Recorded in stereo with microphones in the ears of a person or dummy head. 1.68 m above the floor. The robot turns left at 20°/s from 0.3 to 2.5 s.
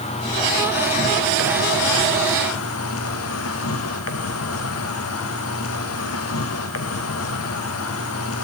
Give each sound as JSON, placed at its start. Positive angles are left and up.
{"t": 0.0, "sound": "an insect", "azimuth_deg": 150, "distance_m": 1.0}